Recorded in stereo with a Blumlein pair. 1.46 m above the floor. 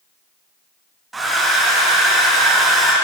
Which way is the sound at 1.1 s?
10° right.